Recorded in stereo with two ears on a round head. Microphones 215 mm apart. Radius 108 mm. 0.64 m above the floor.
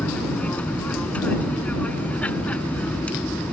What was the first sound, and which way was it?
An aircraft, 5° left (ahead or behind).